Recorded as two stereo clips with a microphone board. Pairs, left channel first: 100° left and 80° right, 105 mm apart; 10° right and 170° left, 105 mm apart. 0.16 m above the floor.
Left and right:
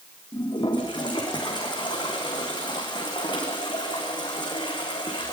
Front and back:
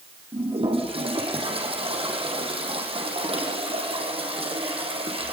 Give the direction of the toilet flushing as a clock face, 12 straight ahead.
7 o'clock.